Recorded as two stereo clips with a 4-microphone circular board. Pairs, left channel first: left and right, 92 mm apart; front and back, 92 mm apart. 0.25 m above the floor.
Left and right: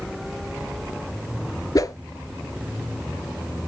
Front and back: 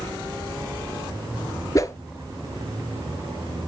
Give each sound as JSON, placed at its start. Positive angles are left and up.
{"t": 1.8, "sound": "a whoosh", "azimuth_deg": 50, "distance_m": 0.6}